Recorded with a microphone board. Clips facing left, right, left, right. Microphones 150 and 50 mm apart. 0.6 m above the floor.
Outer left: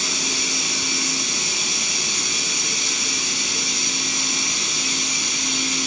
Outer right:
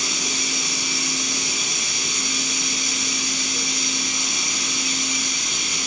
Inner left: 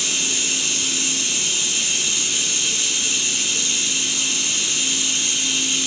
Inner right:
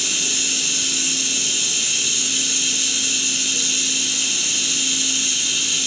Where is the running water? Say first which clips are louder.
Outer left 1 dB, even; 25° left (ahead or behind), 4.5 m.